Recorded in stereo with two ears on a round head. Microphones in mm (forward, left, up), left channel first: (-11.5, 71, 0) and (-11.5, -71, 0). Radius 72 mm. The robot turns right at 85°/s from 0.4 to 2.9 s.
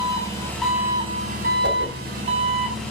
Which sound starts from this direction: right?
A whoosh, at 1.6 s.